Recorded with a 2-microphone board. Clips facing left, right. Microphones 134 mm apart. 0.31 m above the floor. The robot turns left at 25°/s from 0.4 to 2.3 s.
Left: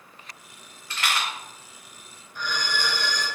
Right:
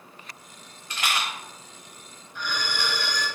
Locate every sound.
0.9 s a rattle: 15° right (ahead or behind), 1.0 m; by 1.3 s 20° right (ahead or behind), 1.0 m
2.4 s a violin: 45° left (ahead or behind), 1.3 m